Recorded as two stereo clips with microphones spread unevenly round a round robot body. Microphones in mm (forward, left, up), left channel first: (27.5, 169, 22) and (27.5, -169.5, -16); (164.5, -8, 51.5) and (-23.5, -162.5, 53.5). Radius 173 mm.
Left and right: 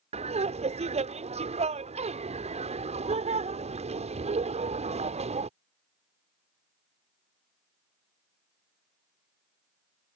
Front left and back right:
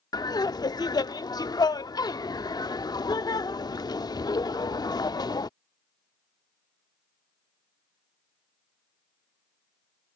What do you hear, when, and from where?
0.1 s laughter: 30° right